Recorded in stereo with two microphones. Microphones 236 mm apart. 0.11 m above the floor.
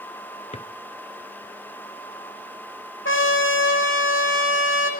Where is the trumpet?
55° left (ahead or behind), 3 m.